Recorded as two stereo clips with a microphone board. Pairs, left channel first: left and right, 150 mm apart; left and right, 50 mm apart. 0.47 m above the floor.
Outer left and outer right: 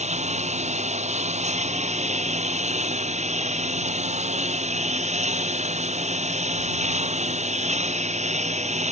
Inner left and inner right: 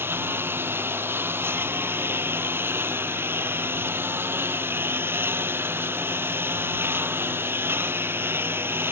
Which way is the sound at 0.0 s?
50° right (ahead or behind).